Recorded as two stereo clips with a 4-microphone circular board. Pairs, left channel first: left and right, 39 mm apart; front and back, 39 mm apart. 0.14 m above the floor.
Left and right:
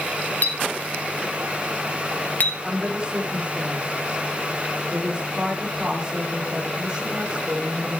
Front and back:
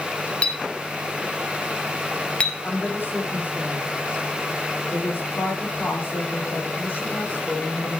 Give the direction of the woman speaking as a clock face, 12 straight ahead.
1 o'clock.